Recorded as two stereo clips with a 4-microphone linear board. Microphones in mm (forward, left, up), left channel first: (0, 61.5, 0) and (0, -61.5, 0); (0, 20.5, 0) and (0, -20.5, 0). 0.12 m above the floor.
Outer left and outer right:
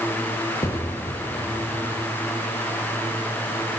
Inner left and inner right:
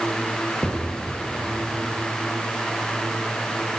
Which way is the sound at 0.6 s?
25° left (ahead or behind).